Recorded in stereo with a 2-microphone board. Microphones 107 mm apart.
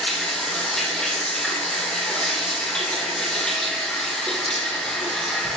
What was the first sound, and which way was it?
Running water, 5° left (ahead or behind).